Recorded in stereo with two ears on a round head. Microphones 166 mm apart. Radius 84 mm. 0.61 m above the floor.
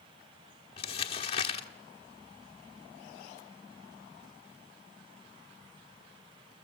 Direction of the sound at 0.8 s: 30° left (ahead or behind).